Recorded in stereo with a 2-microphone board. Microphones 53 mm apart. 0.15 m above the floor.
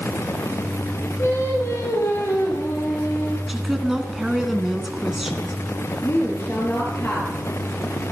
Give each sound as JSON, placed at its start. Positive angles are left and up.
{"t": 1.2, "sound": "singing", "side_deg": 65, "distance_m": 4.5}
{"t": 3.5, "sound": "a woman speaking", "side_deg": -5, "distance_m": 1.7}
{"t": 6.0, "sound": "a woman speaking", "side_deg": 50, "distance_m": 3.5}